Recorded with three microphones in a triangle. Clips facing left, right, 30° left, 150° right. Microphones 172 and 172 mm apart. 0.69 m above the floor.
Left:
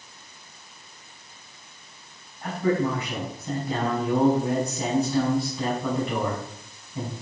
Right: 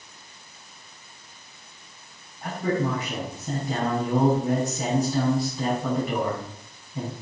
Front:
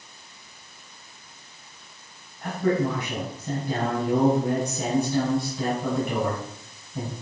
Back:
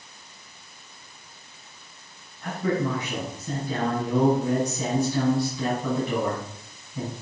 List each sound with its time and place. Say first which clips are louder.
2.4 s a man speaking: left 2 dB, front 2 dB; straight ahead, 5.5 m